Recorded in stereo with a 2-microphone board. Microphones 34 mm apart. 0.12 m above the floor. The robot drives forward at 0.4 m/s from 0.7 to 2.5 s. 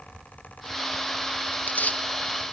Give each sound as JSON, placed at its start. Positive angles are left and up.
{"t": 1.5, "sound": "tearing paper", "side_deg": 55, "distance_m": 0.9}